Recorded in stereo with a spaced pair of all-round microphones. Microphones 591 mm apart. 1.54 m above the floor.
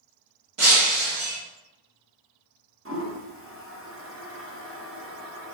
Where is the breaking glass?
55° right (ahead or behind), 1.2 m.